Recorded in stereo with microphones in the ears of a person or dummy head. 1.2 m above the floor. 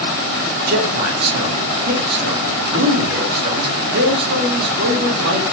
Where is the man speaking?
50° right (ahead or behind), 1.8 m.